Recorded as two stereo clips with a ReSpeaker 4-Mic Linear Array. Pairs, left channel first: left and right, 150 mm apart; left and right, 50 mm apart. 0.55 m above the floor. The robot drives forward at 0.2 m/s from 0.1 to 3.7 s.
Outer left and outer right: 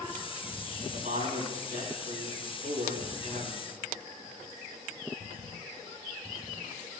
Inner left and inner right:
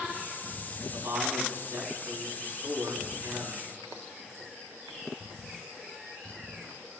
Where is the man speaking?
60° right (ahead or behind), 6 m; by 3.6 s 55° right (ahead or behind), 6 m.